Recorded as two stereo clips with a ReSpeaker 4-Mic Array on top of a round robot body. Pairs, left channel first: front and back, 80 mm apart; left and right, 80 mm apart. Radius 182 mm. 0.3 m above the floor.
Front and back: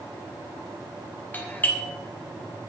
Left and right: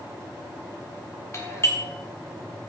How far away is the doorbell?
About 2 m.